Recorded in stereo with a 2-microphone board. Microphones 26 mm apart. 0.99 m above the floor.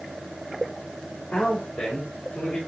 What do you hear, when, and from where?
1.3 s a man speaking: 70° left (ahead or behind), 4.5 m; by 2.6 s 75° left (ahead or behind), 5 m